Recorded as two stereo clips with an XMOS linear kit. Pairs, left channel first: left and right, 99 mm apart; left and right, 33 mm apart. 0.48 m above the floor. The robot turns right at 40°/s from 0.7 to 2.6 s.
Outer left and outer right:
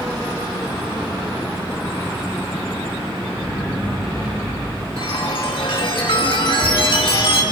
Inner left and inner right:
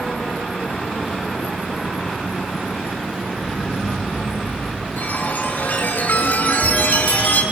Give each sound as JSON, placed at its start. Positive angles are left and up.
{"t": 3.3, "sound": "an explosion", "side_deg": 35, "distance_m": 5.0}
{"t": 5.0, "sound": "a chime", "side_deg": 50, "distance_m": 5.5}